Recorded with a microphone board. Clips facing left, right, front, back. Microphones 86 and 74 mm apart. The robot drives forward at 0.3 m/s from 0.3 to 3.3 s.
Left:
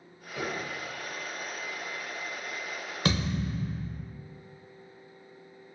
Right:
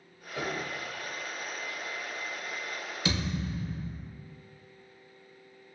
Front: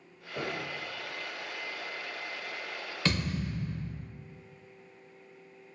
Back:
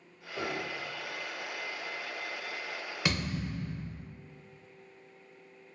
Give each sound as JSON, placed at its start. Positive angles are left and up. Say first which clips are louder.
{"t": 0.3, "sound": "a piano", "louder": "even, even", "azimuth_deg": -5, "distance_m": 1.2}
{"t": 3.0, "sound": "a thud", "louder": "left 3 dB, front 2 dB", "azimuth_deg": 105, "distance_m": 0.6}